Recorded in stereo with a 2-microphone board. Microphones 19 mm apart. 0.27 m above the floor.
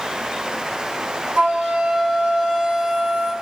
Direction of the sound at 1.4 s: 85° right.